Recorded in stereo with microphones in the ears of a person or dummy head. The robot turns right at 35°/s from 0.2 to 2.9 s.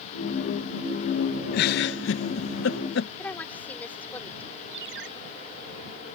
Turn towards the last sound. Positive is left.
turn(degrees=-80)